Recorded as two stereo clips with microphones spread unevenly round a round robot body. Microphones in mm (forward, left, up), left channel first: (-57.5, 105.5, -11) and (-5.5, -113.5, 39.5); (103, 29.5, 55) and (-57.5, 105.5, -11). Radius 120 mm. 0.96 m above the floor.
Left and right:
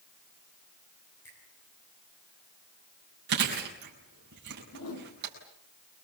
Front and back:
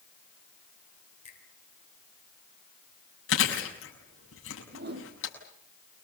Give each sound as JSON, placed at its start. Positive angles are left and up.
{"t": 1.2, "sound": "a finger snap", "azimuth_deg": 25, "distance_m": 9.5}
{"t": 3.3, "sound": "chewing", "azimuth_deg": -25, "distance_m": 7.0}
{"t": 4.7, "sound": "a whoosh", "azimuth_deg": 125, "distance_m": 6.0}